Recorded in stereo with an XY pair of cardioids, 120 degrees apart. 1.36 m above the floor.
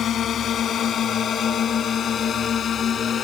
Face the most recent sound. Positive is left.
turn(degrees=45)